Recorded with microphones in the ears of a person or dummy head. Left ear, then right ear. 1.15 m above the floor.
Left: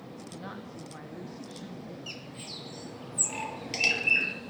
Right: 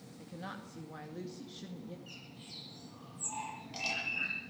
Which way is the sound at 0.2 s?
Centre (ahead or behind).